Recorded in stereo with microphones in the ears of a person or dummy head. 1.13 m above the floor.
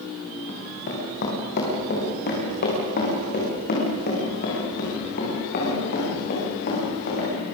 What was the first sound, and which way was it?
Running footsteps, 55° left (ahead or behind).